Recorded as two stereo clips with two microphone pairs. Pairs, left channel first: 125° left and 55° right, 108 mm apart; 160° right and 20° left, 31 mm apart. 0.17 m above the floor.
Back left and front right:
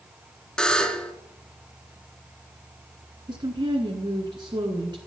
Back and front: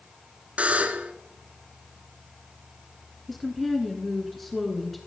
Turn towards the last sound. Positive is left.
turn(degrees=-80)